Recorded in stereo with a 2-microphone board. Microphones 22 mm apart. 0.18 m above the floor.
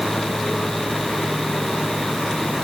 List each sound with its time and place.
Only background noise.